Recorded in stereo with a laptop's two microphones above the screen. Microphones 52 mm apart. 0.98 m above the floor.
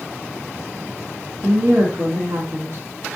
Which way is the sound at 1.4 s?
50° right (ahead or behind).